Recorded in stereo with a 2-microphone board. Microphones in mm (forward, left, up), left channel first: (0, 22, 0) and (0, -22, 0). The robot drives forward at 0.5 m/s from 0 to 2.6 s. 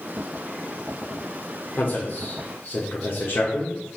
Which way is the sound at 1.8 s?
45° left (ahead or behind).